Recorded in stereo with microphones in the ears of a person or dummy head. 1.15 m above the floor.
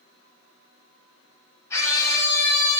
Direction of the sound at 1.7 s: 20° left (ahead or behind).